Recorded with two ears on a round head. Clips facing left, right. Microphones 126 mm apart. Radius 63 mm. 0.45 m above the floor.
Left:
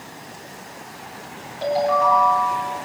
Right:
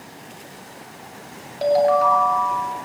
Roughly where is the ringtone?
Right.